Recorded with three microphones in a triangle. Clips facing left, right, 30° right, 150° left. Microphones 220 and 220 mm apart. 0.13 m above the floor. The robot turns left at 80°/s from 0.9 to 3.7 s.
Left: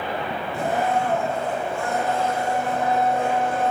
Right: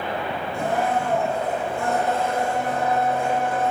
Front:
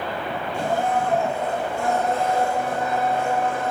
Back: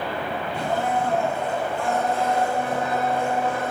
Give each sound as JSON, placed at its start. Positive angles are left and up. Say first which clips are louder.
{"t": 0.5, "sound": "a blender", "louder": "left 1 dB, front 2 dB", "azimuth_deg": 0, "distance_m": 2.5}